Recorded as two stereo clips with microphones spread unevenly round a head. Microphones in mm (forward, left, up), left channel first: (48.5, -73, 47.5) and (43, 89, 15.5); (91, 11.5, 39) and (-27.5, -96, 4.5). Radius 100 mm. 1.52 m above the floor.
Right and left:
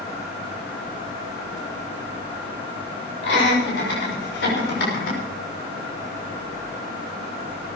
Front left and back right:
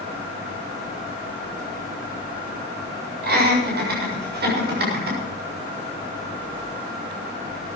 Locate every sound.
3.2 s laughter: 120° right, 7 m; by 5.2 s 125° right, 6 m